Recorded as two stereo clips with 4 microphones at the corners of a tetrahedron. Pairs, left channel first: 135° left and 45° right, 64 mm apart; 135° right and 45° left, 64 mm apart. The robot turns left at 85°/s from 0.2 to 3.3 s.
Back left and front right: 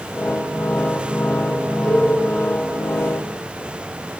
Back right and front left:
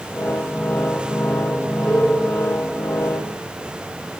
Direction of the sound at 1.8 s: 160° right.